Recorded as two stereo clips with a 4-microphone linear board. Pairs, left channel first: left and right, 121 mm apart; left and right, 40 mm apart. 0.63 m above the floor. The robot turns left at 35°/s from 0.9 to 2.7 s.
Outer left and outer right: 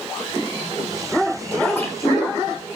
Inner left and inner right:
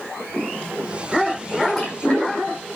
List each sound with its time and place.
1.6 s a splash: 10° left (ahead or behind), 5.5 m; by 2.4 s 35° left (ahead or behind), 5.5 m